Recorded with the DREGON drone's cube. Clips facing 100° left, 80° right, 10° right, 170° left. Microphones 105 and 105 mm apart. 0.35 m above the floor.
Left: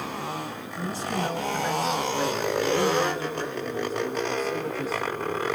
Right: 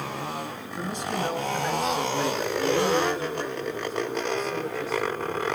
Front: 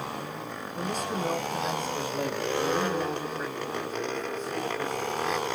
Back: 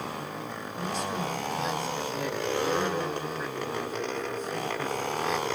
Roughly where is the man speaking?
Ahead.